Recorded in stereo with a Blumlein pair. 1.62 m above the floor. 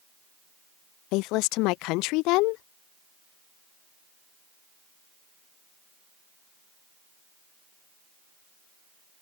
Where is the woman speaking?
40° left.